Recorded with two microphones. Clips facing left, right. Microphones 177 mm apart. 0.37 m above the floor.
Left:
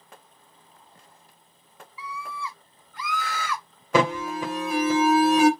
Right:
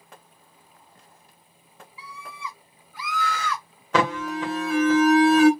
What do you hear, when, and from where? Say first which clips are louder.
2.0 s a scream: left 4 dB; 30° right (ahead or behind), 1.5 m; by 3.6 s 10° left (ahead or behind), 1.3 m
3.9 s an alarm: left 1 dB; 10° left (ahead or behind), 1.6 m